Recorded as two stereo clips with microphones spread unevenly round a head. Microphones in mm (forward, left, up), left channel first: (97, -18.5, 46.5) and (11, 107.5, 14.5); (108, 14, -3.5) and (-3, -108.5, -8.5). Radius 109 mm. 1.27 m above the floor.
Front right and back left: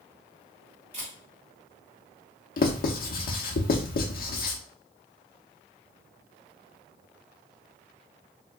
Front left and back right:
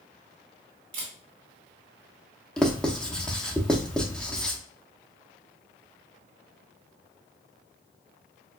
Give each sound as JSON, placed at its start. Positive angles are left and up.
{"t": 0.9, "sound": "a camera shutter", "azimuth_deg": -150, "distance_m": 1.5}
{"t": 2.6, "sound": "writing", "azimuth_deg": -40, "distance_m": 0.8}